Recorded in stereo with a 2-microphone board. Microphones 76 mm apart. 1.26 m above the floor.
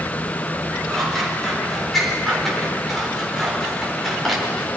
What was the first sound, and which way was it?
Scissors, centre (ahead or behind).